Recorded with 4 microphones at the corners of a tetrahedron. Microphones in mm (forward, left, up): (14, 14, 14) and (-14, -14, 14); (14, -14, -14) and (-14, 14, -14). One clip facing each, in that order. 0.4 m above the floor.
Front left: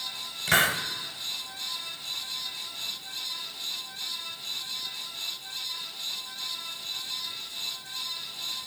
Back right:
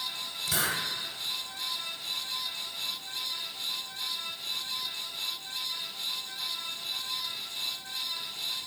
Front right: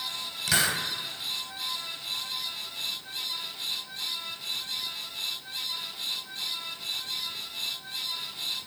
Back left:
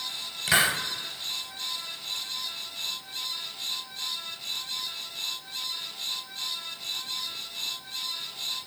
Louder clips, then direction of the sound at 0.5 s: Front left 8 dB, back left 3 dB; 65° left.